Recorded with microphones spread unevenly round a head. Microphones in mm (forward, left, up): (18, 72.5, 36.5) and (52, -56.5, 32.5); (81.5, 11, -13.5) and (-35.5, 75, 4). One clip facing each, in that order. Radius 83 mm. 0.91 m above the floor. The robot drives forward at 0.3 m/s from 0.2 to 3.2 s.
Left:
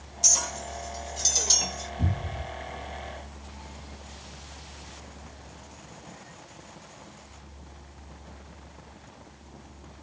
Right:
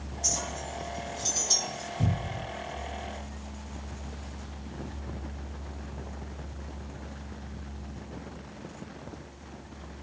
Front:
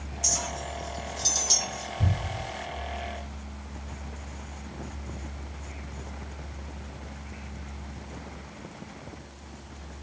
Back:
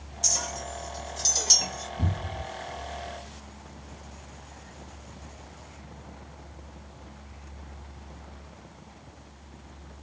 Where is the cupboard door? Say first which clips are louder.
Right 1 dB, front 1 dB; straight behind, 2 m.